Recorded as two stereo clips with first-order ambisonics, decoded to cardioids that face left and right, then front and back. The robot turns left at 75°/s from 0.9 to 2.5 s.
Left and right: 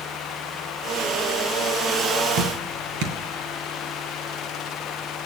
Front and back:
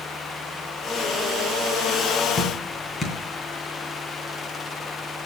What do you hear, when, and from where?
2.4 s dripping: 65° right, 2.5 m; by 3.2 s 75° right, 2.5 m